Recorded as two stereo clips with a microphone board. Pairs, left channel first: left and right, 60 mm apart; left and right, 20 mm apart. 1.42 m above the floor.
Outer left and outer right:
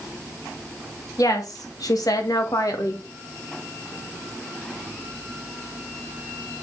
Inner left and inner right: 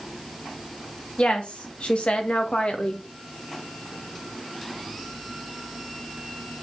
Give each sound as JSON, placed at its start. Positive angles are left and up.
{"t": 1.2, "sound": "a woman speaking", "side_deg": 75, "distance_m": 1.9}